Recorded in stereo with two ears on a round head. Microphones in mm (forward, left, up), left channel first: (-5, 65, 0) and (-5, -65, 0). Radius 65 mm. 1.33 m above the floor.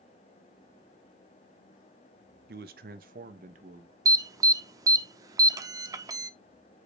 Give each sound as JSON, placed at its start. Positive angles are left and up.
{"t": 2.5, "sound": "a man speaking", "side_deg": -75, "distance_m": 0.8}
{"t": 4.0, "sound": "an alarm", "side_deg": -25, "distance_m": 0.7}